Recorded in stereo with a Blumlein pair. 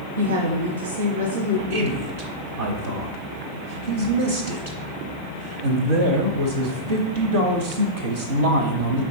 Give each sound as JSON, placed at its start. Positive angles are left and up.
{"t": 0.2, "sound": "a woman speaking", "azimuth_deg": -65, "distance_m": 0.8}
{"t": 1.7, "sound": "a man speaking", "azimuth_deg": -60, "distance_m": 0.8}